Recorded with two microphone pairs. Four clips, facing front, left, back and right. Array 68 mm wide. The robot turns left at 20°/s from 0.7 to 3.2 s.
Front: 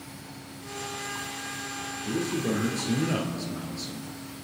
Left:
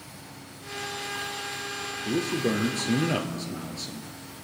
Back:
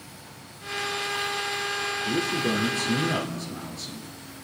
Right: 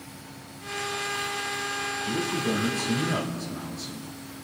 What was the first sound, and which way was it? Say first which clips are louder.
A man speaking: left 3 dB, back 1 dB; 110° left.